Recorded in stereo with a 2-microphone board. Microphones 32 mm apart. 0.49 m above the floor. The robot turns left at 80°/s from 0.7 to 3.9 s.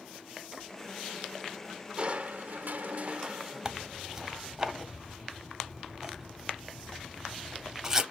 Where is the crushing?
40° right, 0.5 m; by 4.6 s 165° left, 0.5 m.